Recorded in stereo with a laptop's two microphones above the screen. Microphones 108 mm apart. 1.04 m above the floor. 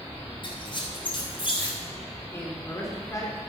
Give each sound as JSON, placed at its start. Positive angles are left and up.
{"t": 0.4, "sound": "a squeak", "side_deg": 45, "distance_m": 3.5}
{"t": 2.3, "sound": "a man speaking", "side_deg": 25, "distance_m": 3.0}